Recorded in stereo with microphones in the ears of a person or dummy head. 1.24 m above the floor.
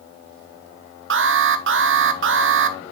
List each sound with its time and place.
1.1 s an alarm: 60° right (ahead or behind), 0.8 m